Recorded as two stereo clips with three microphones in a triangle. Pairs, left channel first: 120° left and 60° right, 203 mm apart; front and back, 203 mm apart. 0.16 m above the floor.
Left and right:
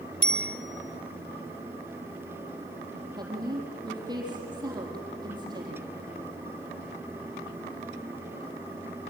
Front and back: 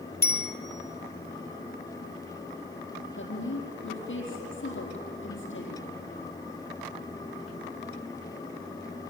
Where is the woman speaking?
10° left, 4 m.